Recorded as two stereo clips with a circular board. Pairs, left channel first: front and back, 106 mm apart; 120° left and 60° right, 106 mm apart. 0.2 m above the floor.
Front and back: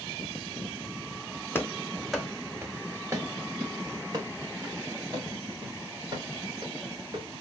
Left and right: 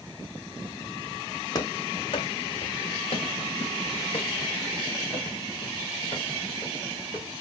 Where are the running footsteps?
70° left, 0.8 m; by 7.4 s 140° left, 4 m.